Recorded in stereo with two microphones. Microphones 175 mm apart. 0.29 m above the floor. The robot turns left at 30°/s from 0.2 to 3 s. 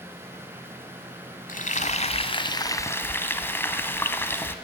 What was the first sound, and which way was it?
Frying, 60° left.